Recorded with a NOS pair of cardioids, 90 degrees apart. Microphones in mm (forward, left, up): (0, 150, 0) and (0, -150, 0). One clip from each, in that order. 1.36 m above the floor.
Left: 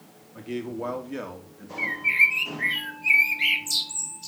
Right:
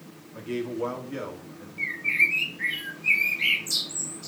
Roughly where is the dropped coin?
No dropped coin in this recording.